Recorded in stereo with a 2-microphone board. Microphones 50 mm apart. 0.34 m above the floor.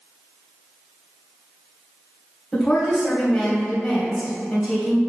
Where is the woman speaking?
5° left (ahead or behind), 2.5 m.